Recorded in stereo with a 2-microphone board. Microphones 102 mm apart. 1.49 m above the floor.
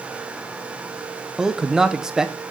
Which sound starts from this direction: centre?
A man speaking, at 1.4 s.